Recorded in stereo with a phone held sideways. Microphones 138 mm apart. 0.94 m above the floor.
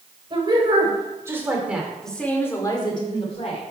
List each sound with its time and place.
0.3 s a woman speaking: 35° right (ahead or behind), 3.5 m; by 3.6 s 55° left (ahead or behind), 2.5 m